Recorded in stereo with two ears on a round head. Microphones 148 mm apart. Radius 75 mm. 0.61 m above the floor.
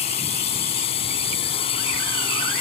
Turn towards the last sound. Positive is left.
turn(degrees=35)  # may be behind; listen again after turning